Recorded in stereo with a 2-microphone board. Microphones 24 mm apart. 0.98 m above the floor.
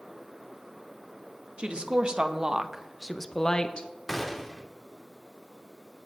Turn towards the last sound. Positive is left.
turn(degrees=0)  # may be behind; listen again after turning